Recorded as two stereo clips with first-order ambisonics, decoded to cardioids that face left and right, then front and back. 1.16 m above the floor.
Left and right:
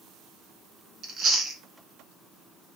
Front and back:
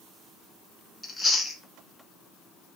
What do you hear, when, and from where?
1.0 s chewing: 75° right, 0.6 m